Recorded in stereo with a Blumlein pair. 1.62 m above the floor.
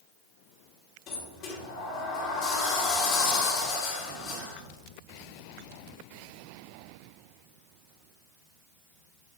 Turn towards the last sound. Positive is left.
turn(degrees=35)